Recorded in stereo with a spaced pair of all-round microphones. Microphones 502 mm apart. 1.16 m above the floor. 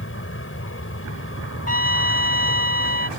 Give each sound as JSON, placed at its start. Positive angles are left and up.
{"t": 0.0, "sound": "an aircraft", "side_deg": 25}
{"t": 1.7, "sound": "a trumpet", "side_deg": 75}